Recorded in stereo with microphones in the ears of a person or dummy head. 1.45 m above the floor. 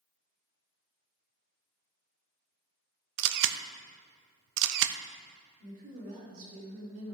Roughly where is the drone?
No drone in this recording.